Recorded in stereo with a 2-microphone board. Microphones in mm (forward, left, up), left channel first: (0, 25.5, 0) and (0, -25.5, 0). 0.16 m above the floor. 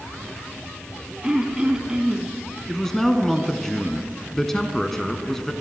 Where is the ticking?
No ticking in this recording.